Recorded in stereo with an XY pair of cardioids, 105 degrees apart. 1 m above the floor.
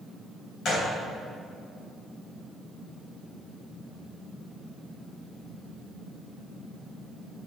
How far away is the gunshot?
About 3.5 m.